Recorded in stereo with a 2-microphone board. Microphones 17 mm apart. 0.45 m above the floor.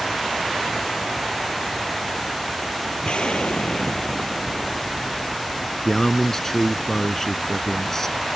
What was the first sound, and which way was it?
An explosion, 75° left (ahead or behind).